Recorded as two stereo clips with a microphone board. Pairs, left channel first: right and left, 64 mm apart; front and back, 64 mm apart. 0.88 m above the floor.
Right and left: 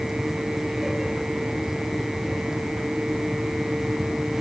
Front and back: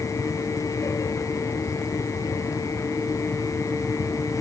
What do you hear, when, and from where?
Only background noise.